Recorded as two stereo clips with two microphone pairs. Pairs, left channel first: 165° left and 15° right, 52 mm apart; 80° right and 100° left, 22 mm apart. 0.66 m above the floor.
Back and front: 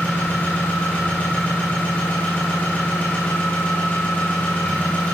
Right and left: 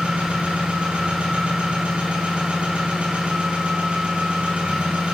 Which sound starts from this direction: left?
An engine running, at 0.0 s.